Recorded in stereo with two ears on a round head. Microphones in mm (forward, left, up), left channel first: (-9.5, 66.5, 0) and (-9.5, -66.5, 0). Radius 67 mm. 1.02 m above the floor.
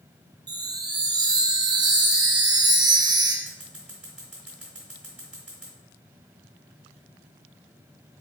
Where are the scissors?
5° right (ahead or behind), 1.7 m.